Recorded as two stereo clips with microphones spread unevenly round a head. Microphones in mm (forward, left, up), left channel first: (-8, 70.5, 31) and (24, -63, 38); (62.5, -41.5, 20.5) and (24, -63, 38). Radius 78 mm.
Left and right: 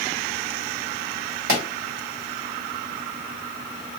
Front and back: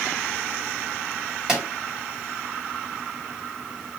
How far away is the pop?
About 1.9 m.